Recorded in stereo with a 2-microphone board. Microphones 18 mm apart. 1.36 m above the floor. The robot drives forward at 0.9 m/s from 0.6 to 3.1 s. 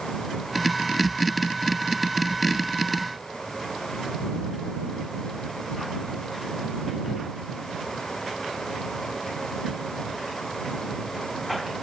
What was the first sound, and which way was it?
Only background noise.